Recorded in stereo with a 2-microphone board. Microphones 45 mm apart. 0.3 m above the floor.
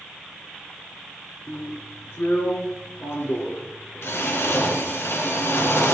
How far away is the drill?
About 2.5 m.